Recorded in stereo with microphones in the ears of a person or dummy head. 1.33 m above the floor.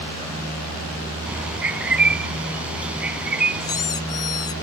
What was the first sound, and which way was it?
A bird, 5° right (ahead or behind).